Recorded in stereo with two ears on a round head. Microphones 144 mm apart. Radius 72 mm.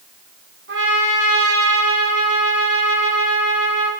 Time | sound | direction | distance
0.7 | a trumpet | 85° right | 7.5 m